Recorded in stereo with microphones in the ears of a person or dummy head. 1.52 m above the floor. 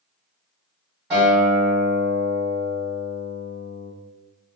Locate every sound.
1.1 s a guitar: 5° right (ahead or behind), 1.4 m